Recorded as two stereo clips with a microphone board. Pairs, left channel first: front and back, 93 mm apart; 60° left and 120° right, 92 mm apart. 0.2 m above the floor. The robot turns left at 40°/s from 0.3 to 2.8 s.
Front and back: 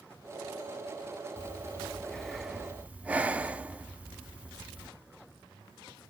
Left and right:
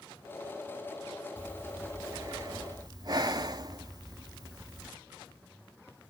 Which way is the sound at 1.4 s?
55° right.